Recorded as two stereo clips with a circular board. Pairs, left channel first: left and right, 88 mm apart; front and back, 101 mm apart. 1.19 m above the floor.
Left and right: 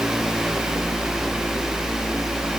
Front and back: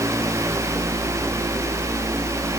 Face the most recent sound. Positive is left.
No sound to turn to.